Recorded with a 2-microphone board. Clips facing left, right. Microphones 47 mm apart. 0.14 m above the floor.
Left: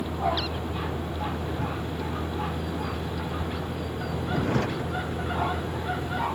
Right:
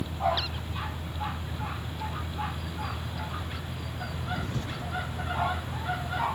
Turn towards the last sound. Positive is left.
turn(degrees=60)  # may be behind; listen again after turning